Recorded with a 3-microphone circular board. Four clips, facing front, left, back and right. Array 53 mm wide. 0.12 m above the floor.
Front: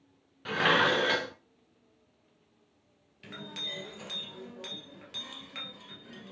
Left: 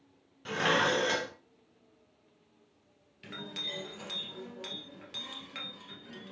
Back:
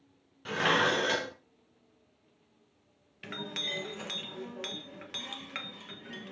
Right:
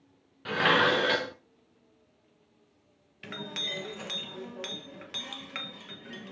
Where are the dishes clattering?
60° right, 1.0 m.